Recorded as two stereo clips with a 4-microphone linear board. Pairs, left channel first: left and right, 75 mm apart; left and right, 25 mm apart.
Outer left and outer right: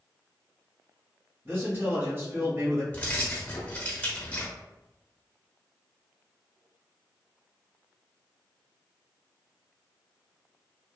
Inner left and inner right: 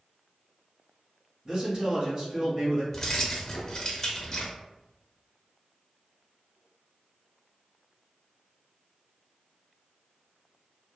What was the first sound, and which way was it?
A man speaking, 35° right (ahead or behind).